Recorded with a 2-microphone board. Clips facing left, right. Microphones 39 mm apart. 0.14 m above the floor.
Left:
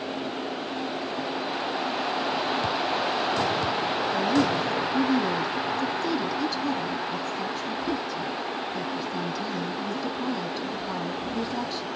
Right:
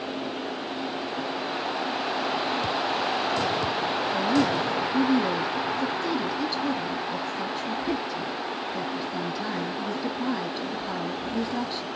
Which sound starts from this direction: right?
A woman speaking, at 4.1 s.